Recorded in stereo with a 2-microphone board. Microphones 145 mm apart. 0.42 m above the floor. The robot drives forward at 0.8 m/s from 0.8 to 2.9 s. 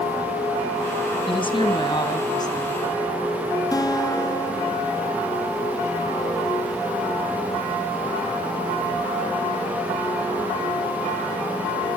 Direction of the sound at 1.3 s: 35° left (ahead or behind).